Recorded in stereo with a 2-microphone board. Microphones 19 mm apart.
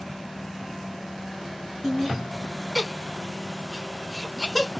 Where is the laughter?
25° right (ahead or behind), 2.5 m; by 4.7 s 10° right (ahead or behind), 1.5 m.